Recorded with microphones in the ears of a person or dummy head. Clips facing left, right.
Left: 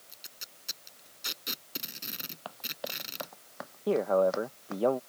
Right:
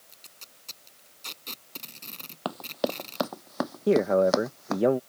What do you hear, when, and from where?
0.1 s tape being pulled: 10° left (ahead or behind)
2.5 s running footsteps: 60° right (ahead or behind); by 4.8 s 70° right (ahead or behind)
3.9 s a man speaking: 25° right (ahead or behind)